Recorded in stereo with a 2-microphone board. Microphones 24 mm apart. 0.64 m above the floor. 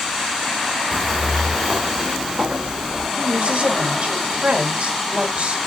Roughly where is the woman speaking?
Right.